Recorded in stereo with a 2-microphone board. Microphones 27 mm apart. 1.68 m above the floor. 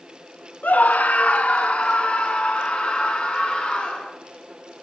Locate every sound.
0.6 s a scream: 75° left (ahead or behind), 1.0 m; by 4.1 s 35° left (ahead or behind), 2.5 m